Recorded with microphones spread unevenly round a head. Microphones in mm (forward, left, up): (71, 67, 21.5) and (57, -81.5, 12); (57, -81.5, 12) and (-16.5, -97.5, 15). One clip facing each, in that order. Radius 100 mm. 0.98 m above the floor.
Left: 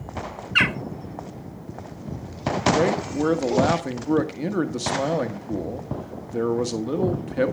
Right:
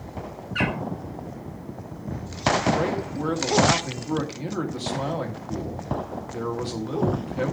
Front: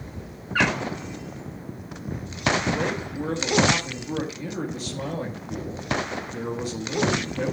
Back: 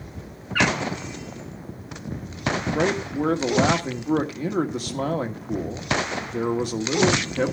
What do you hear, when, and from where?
0.6 s a bird: 95° left, 0.9 m
2.7 s a man speaking: 140° left, 1.4 m